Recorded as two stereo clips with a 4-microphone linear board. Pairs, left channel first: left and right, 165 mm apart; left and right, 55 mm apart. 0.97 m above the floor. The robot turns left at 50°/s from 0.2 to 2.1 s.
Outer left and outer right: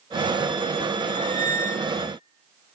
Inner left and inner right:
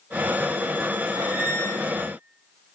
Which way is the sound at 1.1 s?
20° right.